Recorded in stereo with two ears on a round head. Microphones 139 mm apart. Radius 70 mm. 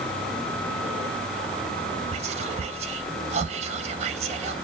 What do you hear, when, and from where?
2.1 s whispering: 45° right (ahead or behind), 0.7 m